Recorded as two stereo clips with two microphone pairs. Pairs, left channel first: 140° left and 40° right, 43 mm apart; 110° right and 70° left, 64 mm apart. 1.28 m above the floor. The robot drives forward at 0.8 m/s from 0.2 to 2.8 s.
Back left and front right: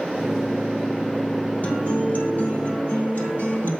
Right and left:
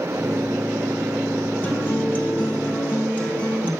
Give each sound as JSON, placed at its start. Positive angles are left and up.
{"t": 1.6, "sound": "a guitar", "azimuth_deg": -170, "distance_m": 2.0}